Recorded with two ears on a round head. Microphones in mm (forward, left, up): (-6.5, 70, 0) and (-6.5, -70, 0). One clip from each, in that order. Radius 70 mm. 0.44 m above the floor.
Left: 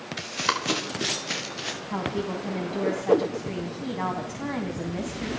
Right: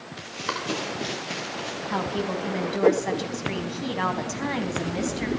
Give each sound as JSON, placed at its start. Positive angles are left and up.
{"t": 0.2, "sound": "running footsteps", "side_deg": 50, "distance_m": 5.0}
{"t": 1.9, "sound": "a woman speaking", "side_deg": -50, "distance_m": 3.5}